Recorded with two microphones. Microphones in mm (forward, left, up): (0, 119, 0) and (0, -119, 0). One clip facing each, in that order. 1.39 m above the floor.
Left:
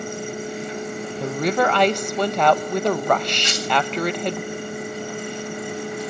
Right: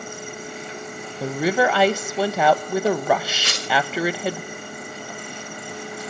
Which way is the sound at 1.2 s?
5° right (ahead or behind).